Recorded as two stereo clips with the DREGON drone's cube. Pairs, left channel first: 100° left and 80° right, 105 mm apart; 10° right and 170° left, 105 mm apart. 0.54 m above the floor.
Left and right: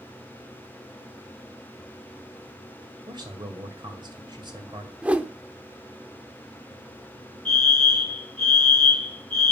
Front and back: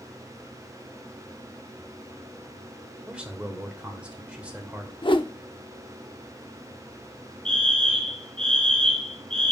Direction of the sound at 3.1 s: 110° right.